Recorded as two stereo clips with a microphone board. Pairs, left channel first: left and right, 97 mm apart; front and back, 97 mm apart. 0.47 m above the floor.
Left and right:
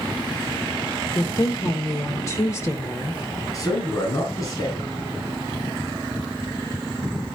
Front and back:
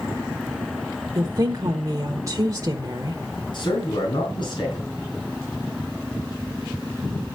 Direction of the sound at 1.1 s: 135° left.